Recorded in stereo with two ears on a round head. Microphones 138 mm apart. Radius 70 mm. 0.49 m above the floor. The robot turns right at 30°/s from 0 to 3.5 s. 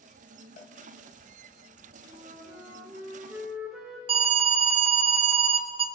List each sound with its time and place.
0.6 s a cowbell: 55° left (ahead or behind), 1.1 m; by 0.8 s 50° left (ahead or behind), 1.1 m
2.1 s a flute: 50° right, 1.6 m; by 4.0 s 5° right, 1.6 m
4.1 s an alarm: 35° right (ahead or behind), 0.6 m